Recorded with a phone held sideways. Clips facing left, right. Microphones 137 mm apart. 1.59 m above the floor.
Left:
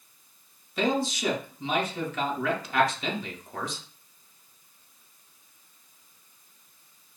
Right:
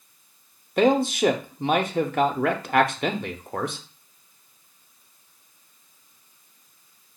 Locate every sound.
0.8 s a man speaking: 60° right (ahead or behind), 0.6 m